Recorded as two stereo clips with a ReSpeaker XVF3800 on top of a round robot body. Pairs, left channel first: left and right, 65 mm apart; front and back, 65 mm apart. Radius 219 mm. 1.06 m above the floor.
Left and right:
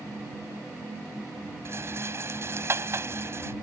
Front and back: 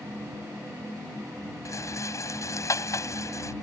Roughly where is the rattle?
Ahead right.